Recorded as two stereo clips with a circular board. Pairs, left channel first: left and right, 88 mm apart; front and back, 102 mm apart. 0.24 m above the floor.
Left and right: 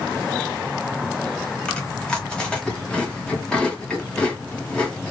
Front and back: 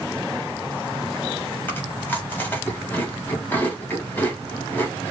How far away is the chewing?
About 1.1 m.